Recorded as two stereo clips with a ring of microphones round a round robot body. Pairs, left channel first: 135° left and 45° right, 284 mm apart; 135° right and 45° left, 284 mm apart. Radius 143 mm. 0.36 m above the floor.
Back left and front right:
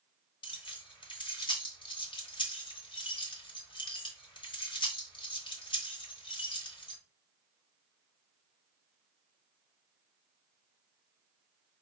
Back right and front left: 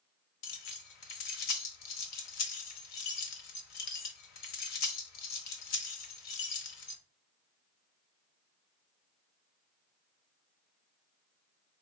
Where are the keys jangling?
155° right, 1.0 m.